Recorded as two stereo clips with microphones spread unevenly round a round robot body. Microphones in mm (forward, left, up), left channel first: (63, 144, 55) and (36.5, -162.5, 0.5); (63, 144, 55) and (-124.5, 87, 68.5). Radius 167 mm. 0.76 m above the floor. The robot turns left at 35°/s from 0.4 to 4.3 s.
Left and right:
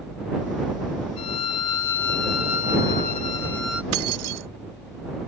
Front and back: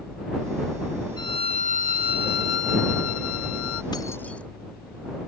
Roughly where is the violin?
Left.